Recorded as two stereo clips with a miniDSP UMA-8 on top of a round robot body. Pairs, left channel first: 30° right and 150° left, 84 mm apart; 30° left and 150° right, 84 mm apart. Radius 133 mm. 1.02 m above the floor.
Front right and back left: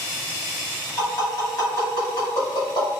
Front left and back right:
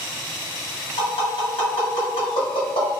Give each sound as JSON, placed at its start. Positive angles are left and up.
{"t": 1.0, "sound": "tapping", "azimuth_deg": 15, "distance_m": 1.8}